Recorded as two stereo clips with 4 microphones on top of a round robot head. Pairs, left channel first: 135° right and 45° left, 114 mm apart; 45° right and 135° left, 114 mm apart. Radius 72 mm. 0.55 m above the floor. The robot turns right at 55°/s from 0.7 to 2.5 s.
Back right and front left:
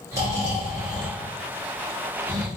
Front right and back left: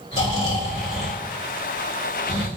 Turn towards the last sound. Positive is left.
turn(degrees=90)